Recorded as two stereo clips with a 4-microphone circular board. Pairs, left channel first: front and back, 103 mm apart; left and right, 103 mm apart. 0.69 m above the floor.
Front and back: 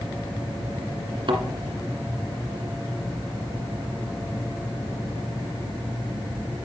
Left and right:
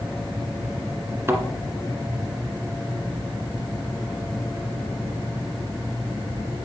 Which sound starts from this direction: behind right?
A thud, at 1.3 s.